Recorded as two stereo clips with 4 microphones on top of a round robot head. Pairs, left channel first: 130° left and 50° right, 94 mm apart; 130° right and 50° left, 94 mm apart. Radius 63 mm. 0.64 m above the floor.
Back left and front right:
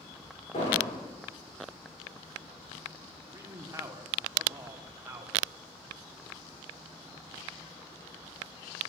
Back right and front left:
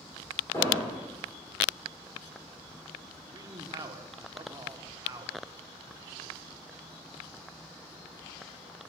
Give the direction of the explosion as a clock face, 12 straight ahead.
7 o'clock.